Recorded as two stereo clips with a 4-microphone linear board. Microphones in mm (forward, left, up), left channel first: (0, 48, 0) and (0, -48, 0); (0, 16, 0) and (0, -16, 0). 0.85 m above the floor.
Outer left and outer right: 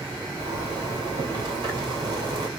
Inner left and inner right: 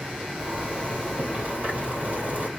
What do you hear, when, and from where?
0.4 s a zipper: 50° right (ahead or behind), 2 m